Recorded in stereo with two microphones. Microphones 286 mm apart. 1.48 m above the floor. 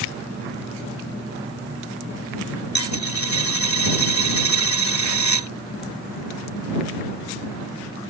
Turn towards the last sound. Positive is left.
turn(degrees=75)  # may be behind; listen again after turning